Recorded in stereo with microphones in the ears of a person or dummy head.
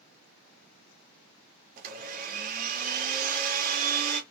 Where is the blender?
50° right (ahead or behind), 0.9 m.